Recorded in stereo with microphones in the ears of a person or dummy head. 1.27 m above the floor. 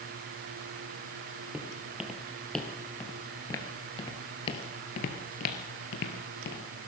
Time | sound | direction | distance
1.5 | footsteps | 5° right (ahead or behind) | 2 m